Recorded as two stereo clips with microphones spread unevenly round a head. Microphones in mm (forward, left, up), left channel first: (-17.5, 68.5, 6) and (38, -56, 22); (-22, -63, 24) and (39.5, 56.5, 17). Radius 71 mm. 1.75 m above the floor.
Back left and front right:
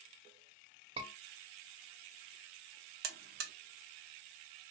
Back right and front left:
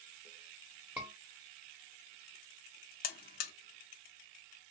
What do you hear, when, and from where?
1.0 s a scream: 10° right, 1.1 m
3.0 s a buzzer: 90° right, 0.6 m